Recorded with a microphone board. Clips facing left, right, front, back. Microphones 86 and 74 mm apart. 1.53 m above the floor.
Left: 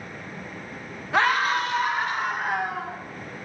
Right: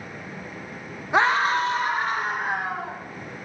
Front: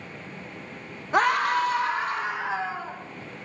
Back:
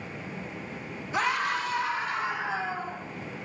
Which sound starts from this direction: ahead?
A scream, at 1.1 s.